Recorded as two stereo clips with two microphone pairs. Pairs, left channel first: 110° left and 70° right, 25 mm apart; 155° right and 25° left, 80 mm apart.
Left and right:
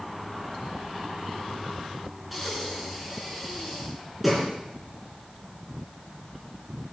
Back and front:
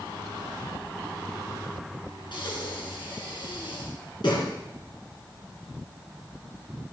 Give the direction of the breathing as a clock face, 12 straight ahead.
5 o'clock.